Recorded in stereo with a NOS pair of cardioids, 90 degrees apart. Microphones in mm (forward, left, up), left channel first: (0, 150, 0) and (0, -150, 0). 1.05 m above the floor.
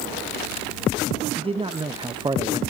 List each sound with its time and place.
1.4 s a man speaking: 20° right, 1.3 m; by 2.6 s 15° right, 0.7 m